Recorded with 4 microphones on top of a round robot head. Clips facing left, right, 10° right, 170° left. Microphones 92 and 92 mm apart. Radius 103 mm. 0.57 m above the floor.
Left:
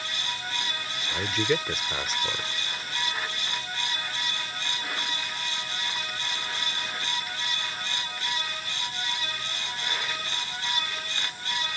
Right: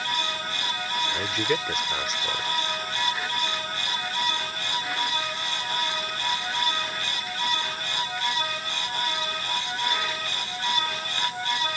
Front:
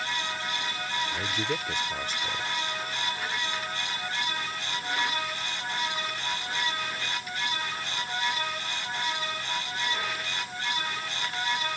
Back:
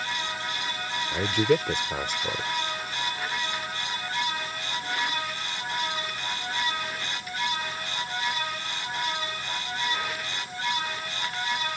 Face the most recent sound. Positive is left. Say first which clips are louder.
# left 3 dB, back 8 dB
turn(degrees=180)